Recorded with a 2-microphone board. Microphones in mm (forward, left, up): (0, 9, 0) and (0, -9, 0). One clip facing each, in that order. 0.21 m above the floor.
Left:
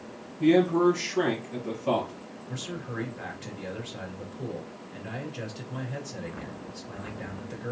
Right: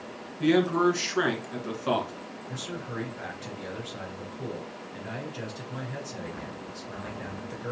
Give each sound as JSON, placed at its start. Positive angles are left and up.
{"t": 0.4, "sound": "a man speaking", "side_deg": -40, "distance_m": 2.0}
{"t": 2.5, "sound": "a man speaking", "side_deg": -5, "distance_m": 3.0}